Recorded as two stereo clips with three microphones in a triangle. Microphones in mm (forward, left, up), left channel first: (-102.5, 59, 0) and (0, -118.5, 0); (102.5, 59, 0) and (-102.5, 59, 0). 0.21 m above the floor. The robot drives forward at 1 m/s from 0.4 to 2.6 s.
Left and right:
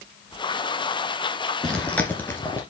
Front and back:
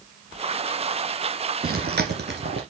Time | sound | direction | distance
1.6 | chewing | 155° right | 1.8 m